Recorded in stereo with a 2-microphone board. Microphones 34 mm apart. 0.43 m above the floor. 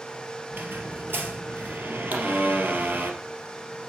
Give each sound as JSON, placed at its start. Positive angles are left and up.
{"t": 0.5, "sound": "a squeak", "side_deg": -80, "distance_m": 2.0}
{"t": 2.1, "sound": "a pop", "side_deg": -75, "distance_m": 4.5}